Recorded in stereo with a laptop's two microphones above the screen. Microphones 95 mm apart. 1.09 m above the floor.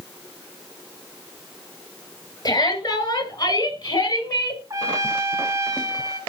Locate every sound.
2.5 s a shout: 50° left (ahead or behind), 5.5 m; by 4.6 s 55° left (ahead or behind), 4.5 m
4.7 s a trumpet: 35° right (ahead or behind), 1.4 m